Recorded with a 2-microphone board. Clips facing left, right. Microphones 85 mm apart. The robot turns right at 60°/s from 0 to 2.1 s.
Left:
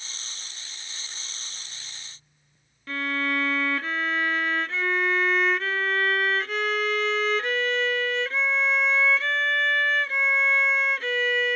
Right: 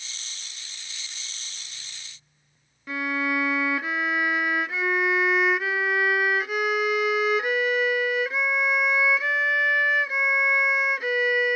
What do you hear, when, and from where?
2.9 s a violin: 15° right (ahead or behind)